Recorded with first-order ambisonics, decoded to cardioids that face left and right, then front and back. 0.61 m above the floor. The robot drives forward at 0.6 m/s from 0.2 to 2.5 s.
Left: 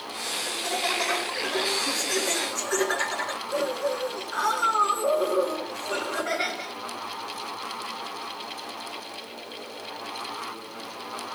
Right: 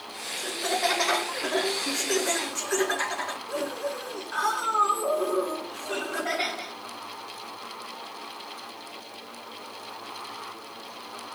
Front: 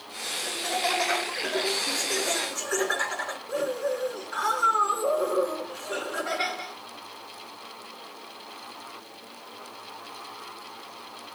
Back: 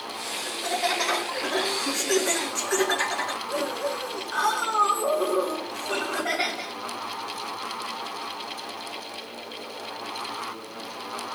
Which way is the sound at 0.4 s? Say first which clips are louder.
Right 2 dB, back 1 dB; 85° right.